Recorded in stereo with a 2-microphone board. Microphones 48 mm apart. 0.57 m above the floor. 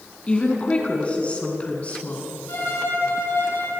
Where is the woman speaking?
25° left (ahead or behind), 6 m; by 2.3 s 35° left (ahead or behind), 7 m.